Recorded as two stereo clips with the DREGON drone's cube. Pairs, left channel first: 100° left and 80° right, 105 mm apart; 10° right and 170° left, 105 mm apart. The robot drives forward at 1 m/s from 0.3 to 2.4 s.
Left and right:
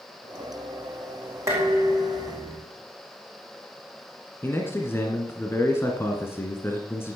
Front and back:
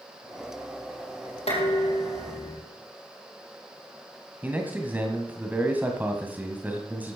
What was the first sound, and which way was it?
Dishes clattering, 15° right.